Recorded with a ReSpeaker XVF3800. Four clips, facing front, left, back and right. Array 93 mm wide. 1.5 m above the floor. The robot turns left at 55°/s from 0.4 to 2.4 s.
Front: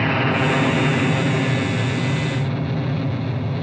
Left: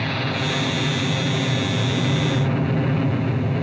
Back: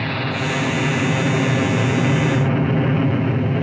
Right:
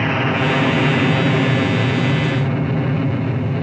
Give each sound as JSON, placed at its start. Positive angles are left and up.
{"t": 0.0, "sound": "an aircraft", "azimuth_deg": -55}